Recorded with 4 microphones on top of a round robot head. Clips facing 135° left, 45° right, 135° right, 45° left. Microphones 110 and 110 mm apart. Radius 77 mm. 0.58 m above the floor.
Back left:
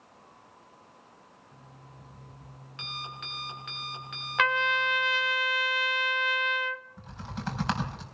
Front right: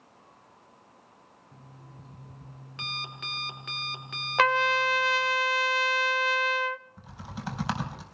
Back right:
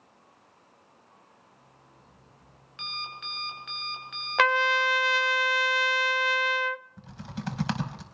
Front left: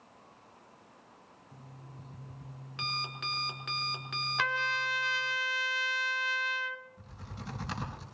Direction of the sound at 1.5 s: Straight ahead.